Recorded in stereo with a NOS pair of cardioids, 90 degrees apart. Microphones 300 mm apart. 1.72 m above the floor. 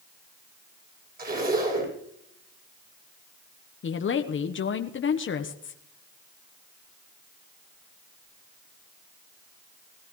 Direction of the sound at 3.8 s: 40° left.